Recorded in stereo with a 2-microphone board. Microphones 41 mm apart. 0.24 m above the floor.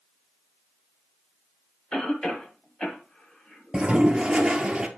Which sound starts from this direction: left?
A cough, at 1.9 s.